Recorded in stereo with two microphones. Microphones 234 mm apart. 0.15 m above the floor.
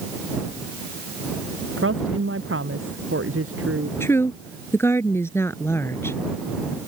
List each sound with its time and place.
1.8 s a woman speaking: 65° right (ahead or behind)
4.0 s a woman speaking: 10° left (ahead or behind)